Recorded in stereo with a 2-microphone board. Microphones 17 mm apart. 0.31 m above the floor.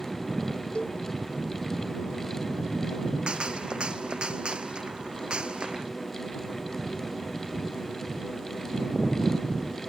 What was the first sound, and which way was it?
A cowbell, 65° left (ahead or behind).